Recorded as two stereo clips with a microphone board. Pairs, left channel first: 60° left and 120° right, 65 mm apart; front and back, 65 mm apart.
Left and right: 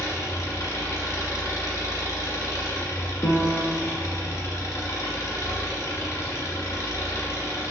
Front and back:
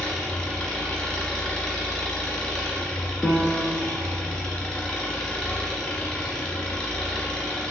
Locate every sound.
0.0 s an engine running: 75° left, 1.0 m
3.2 s a piano: 95° left, 0.6 m